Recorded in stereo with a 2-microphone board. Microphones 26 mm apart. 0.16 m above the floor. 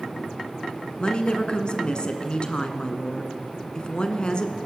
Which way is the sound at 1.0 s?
40° left (ahead or behind).